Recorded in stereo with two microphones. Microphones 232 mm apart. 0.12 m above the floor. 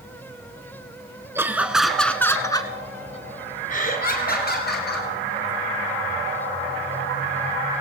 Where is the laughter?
10° right (ahead or behind), 1.3 m; by 5.1 s 45° left (ahead or behind), 2.0 m.